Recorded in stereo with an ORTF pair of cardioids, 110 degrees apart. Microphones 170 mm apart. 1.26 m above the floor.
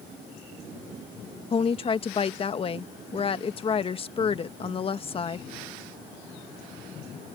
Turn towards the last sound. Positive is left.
turn(degrees=35)